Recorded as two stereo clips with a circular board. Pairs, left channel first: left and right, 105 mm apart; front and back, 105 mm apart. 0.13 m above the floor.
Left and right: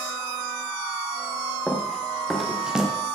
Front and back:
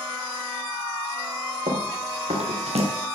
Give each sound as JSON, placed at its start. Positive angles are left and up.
{"t": 1.7, "sound": "running footsteps", "azimuth_deg": 175, "distance_m": 3.5}